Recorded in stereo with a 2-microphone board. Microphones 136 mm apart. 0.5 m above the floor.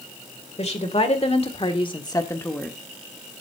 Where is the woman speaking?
45° left (ahead or behind), 2.0 m; by 2.8 s 5° left (ahead or behind), 1.2 m.